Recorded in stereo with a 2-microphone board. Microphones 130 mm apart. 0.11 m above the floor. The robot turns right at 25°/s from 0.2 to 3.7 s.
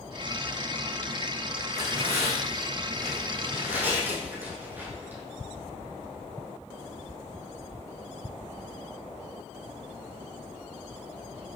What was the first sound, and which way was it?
Tearing paper, 65° right (ahead or behind).